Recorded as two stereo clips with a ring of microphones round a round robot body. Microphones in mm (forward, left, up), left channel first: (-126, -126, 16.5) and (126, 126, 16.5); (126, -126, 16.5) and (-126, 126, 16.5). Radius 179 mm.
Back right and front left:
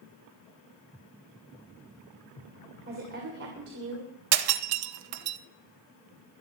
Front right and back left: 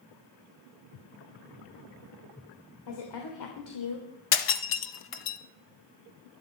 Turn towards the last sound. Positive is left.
turn(degrees=5)